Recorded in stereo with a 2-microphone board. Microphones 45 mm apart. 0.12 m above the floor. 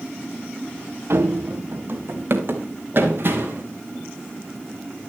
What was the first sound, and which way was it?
Running footsteps, 70° right (ahead or behind).